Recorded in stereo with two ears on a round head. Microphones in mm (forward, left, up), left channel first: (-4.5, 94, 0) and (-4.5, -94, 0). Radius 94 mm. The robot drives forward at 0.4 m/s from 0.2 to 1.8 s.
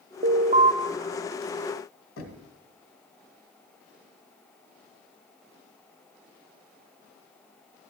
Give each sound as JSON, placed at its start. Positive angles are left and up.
{"t": 0.2, "sound": "an alarm", "side_deg": -40, "distance_m": 0.7}
{"t": 2.2, "sound": "knocking", "side_deg": 70, "distance_m": 2.0}